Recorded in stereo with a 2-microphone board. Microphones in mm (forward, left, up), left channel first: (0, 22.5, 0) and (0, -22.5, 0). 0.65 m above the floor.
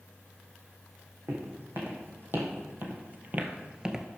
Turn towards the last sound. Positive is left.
turn(degrees=-5)  # may be behind; listen again after turning